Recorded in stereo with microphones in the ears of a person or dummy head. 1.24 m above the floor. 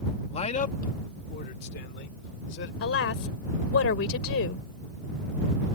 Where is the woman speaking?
80° left.